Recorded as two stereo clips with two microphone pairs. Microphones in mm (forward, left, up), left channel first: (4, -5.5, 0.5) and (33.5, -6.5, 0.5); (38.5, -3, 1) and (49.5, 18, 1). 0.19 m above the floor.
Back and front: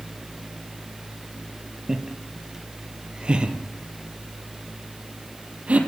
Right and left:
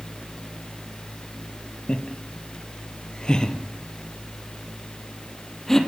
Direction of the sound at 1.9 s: 75° right.